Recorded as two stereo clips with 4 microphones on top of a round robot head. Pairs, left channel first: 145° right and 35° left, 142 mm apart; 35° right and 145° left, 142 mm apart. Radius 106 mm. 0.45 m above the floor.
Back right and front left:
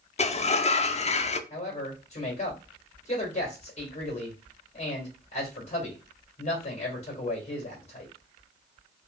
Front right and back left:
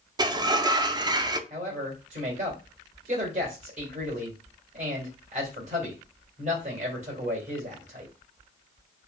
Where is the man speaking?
175° left, 2 m.